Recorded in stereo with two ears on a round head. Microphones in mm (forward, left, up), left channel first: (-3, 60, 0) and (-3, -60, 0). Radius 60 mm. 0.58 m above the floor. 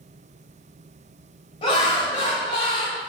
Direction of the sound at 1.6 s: 40° left (ahead or behind).